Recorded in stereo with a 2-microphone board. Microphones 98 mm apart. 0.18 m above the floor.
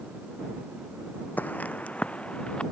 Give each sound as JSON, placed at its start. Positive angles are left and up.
{"t": 1.4, "sound": "footsteps", "side_deg": 20}